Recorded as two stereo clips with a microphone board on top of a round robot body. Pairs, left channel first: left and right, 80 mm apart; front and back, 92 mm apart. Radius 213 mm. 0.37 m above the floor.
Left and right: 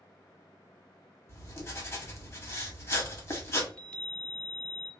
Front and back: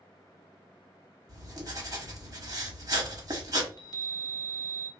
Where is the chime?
20° left, 1.3 m.